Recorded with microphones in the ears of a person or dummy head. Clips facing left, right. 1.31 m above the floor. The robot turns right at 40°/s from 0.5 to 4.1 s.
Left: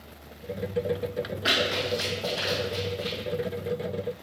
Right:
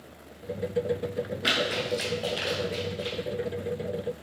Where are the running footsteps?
25° right (ahead or behind), 1.6 m; by 3.2 s 30° right (ahead or behind), 1.6 m.